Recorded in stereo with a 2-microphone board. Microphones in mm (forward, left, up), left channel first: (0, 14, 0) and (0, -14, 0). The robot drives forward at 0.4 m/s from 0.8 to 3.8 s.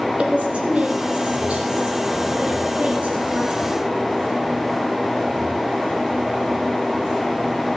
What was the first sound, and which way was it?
A woman speaking, 55° right (ahead or behind).